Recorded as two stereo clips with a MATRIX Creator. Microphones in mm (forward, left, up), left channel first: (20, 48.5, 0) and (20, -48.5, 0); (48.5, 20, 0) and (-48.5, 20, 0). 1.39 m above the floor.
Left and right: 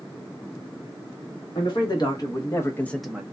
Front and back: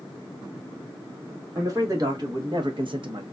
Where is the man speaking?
125° left, 1.4 m; by 3.2 s 155° right, 0.5 m.